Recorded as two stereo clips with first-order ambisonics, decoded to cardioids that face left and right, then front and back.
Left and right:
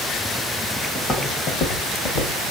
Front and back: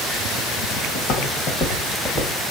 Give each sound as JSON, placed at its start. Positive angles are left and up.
{"t": 0.9, "sound": "footsteps", "azimuth_deg": 10, "distance_m": 1.0}